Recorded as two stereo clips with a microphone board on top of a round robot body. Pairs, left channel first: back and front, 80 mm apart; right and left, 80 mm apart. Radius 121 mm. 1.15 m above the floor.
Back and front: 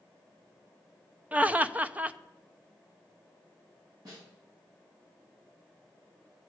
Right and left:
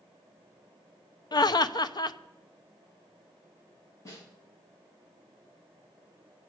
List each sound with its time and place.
1.3 s laughter: 70° right, 0.8 m
4.0 s a snare drum: 40° right, 9.5 m